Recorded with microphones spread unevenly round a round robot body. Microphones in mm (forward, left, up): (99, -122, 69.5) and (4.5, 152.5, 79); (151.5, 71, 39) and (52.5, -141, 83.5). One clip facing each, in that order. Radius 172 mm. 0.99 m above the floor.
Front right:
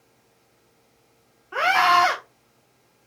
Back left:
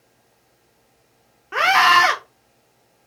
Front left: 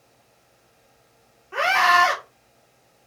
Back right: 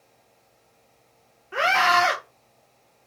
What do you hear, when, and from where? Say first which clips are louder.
1.5 s a scream: back left 1 dB, front left 1 dB; 160° left, 0.6 m